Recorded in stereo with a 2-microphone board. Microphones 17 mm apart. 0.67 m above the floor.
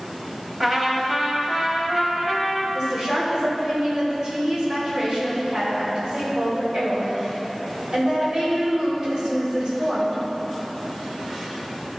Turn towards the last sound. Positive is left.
turn(degrees=-45)  # may be behind; listen again after turning